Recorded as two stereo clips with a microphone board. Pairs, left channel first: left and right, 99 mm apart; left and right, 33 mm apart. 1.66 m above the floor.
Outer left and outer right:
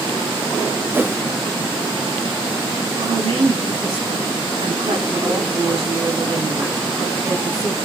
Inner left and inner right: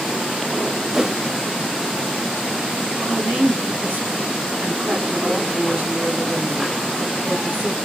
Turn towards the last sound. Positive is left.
turn(degrees=-65)  # may be behind; listen again after turning